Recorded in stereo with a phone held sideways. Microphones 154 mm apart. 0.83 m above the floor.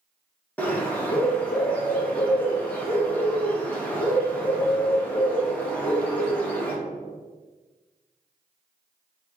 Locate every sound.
0.6 s a bird: 10° left (ahead or behind), 0.8 m